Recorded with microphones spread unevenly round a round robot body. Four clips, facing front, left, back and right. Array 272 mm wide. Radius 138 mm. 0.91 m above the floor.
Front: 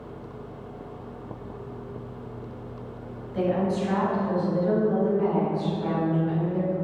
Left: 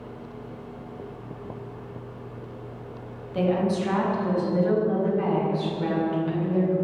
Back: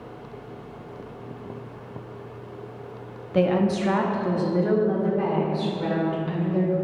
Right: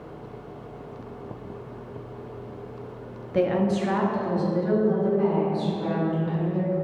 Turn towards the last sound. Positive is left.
turn(degrees=150)